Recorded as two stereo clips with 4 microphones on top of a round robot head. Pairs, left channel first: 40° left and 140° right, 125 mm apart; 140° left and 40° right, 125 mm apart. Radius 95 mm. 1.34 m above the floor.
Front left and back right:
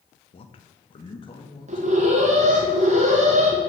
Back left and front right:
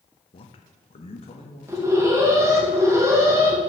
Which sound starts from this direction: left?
A man speaking, at 0.3 s.